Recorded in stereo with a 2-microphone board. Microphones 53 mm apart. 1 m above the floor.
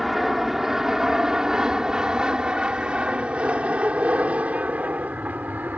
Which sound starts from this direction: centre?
An aircraft, at 0.0 s.